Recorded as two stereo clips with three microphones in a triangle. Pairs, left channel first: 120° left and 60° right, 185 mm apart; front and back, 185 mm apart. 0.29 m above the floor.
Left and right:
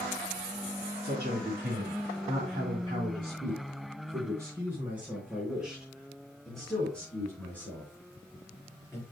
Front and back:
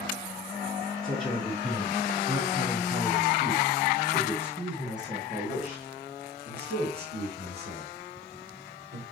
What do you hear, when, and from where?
1.0 s a man speaking: 95° right, 3.5 m; by 9.0 s 165° right, 5.5 m